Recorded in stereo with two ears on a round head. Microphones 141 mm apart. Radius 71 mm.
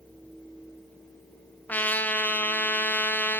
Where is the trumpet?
10° left (ahead or behind), 1.7 m.